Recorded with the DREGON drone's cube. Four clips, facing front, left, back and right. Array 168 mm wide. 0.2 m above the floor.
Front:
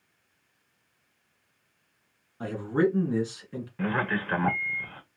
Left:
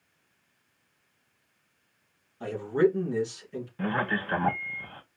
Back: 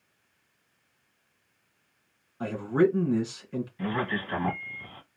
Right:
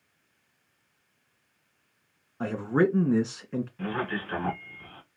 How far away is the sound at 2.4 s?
About 1.7 m.